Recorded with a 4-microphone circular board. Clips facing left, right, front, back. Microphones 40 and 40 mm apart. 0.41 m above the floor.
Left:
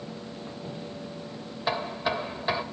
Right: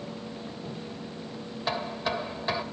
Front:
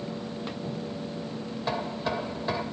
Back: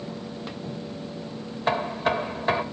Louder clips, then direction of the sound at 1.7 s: Left 2 dB, back 7 dB; 170° left.